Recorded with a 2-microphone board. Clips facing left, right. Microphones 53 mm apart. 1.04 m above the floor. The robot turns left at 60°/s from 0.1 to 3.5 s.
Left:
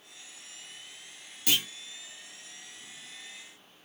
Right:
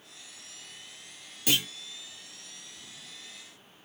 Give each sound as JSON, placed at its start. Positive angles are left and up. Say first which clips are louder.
{"t": 1.5, "sound": "a clunk", "louder": "right 1 dB", "side_deg": -10, "distance_m": 1.2}